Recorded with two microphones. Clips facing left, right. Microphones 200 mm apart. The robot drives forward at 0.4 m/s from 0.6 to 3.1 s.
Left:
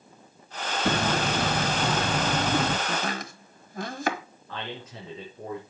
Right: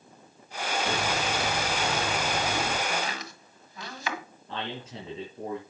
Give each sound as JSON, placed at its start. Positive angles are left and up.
{"t": 0.8, "sound": "hammering", "side_deg": 55, "distance_m": 1.9}
{"t": 2.9, "sound": "chopping", "side_deg": 50, "distance_m": 1.4}
{"t": 4.5, "sound": "a man speaking", "side_deg": -30, "distance_m": 4.5}